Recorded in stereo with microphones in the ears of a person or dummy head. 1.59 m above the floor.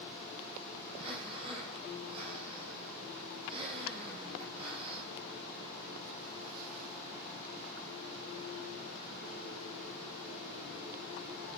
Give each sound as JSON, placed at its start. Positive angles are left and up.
{"t": 0.9, "sound": "breathing", "side_deg": -30, "distance_m": 6.5}